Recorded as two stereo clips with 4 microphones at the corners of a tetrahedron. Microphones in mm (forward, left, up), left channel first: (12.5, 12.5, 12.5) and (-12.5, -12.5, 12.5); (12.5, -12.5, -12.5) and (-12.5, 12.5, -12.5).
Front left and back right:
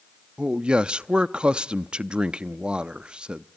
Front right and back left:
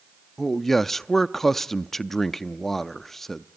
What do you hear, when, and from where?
0.4 s a man speaking: 120° right, 0.5 m